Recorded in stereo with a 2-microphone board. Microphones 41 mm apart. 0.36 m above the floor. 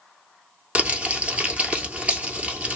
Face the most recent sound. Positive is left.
turn(degrees=-30)  # may be behind; listen again after turning